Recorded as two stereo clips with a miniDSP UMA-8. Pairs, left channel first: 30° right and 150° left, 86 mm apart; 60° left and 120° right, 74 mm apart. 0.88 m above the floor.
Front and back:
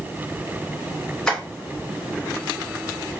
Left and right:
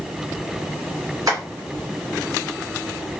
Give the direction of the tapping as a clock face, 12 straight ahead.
4 o'clock.